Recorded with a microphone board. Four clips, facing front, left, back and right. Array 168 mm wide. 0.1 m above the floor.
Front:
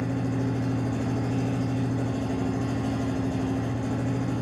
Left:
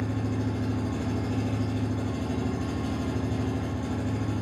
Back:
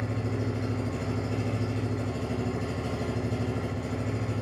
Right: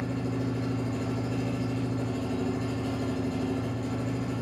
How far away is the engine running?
About 3.5 m.